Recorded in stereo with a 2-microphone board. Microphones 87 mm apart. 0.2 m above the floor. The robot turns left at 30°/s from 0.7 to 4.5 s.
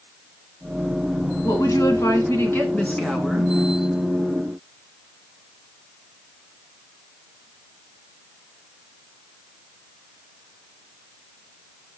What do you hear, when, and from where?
1.4 s a woman speaking: 65° left, 2 m; by 3.5 s straight ahead, 2 m